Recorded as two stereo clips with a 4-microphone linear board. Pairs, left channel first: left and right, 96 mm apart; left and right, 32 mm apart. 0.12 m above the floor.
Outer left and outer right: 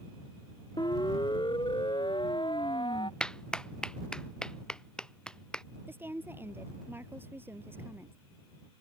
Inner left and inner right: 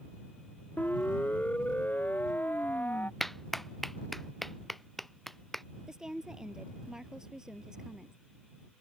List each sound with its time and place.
0.8 s a siren: 50° left (ahead or behind); by 3.1 s 55° left (ahead or behind)
3.2 s a clap: 10° left (ahead or behind)
5.9 s a woman speaking: 25° right (ahead or behind)